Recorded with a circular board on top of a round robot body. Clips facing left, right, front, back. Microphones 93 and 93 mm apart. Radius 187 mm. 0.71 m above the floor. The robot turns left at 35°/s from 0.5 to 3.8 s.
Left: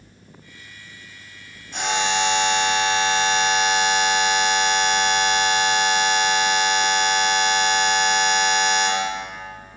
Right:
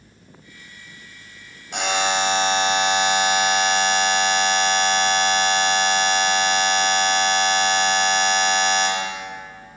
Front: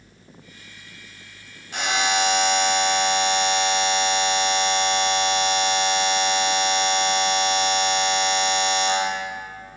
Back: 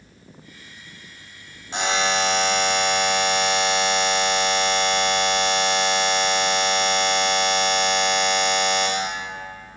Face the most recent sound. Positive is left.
turn(degrees=175)